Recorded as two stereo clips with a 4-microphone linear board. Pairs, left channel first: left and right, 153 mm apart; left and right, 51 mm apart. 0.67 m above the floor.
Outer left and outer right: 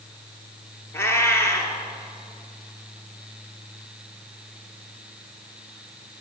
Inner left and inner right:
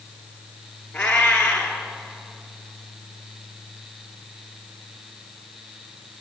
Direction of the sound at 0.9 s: 15° left (ahead or behind).